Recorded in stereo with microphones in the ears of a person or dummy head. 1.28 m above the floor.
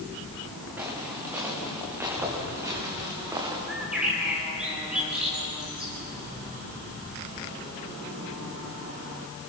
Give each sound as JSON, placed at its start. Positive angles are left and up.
{"t": 0.8, "sound": "footsteps", "side_deg": -5, "distance_m": 7.0}
{"t": 3.7, "sound": "a bird", "side_deg": 0, "distance_m": 6.0}